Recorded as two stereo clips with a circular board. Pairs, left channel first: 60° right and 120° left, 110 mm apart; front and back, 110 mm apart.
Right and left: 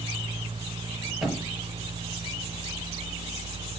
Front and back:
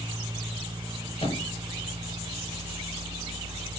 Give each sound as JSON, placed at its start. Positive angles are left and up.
{"t": 1.2, "sound": "a thud", "azimuth_deg": 30, "distance_m": 7.0}